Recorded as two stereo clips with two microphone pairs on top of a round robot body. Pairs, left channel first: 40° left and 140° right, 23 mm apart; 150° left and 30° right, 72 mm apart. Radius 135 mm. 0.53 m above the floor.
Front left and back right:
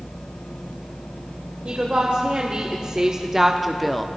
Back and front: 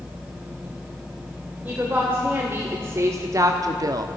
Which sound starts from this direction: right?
A woman speaking, at 1.6 s.